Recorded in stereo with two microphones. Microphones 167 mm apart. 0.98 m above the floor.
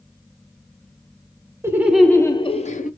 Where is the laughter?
15° right (ahead or behind), 0.9 m; by 2.9 s 55° left (ahead or behind), 0.9 m.